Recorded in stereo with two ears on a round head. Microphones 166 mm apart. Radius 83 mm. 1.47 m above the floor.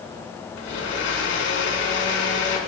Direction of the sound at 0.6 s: 75° left (ahead or behind).